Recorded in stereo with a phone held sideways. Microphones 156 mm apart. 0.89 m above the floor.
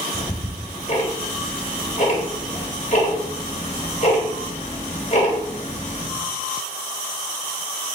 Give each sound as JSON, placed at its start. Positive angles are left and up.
{"t": 0.1, "sound": "ticking", "side_deg": 45, "distance_m": 1.3}